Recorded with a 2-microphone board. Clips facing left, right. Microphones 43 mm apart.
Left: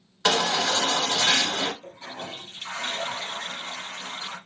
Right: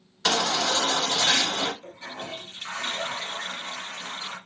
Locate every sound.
0.2 s a baby crying: 10° left (ahead or behind), 1.0 m
1.8 s a toilet flushing: 35° right (ahead or behind), 2.5 m